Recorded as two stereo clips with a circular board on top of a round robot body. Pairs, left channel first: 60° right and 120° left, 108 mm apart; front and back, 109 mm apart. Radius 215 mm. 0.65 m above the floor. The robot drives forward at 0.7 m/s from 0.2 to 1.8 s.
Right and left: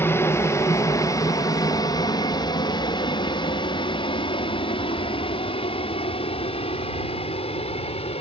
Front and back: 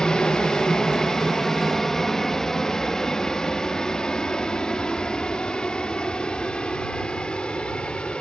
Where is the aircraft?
70° right; by 8.2 s 80° right.